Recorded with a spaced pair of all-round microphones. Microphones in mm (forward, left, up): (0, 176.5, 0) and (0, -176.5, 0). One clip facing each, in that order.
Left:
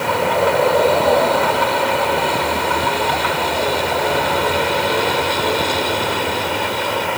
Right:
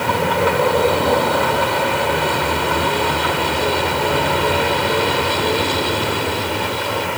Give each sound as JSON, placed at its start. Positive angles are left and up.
{"t": 0.0, "sound": "a vehicle", "side_deg": -25}